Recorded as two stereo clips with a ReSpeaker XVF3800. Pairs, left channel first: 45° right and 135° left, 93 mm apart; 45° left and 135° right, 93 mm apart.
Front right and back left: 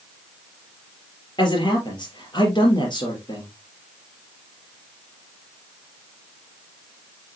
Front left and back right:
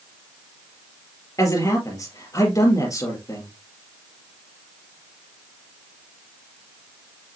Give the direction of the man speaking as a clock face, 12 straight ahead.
12 o'clock.